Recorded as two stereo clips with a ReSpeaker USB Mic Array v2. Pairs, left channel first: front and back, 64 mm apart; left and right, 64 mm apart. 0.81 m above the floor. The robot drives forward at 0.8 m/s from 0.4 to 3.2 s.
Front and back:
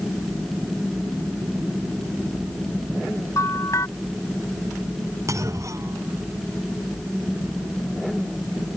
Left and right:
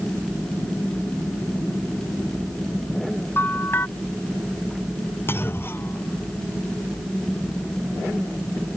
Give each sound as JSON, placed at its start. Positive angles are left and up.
{"t": 3.4, "sound": "a bell", "azimuth_deg": 35}
{"t": 5.3, "sound": "a clunk", "azimuth_deg": 140}